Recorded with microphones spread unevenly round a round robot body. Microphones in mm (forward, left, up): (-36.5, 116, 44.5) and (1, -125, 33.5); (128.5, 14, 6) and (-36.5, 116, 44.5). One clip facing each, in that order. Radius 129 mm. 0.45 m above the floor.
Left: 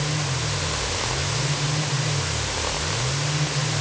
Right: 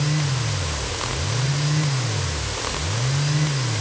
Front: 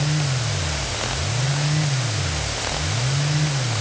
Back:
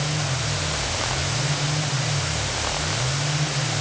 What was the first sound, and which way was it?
Only background noise.